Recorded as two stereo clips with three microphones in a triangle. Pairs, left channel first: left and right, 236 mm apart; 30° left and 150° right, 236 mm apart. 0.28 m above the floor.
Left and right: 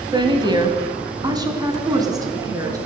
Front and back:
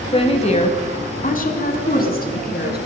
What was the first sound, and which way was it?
A woman speaking, 30° right.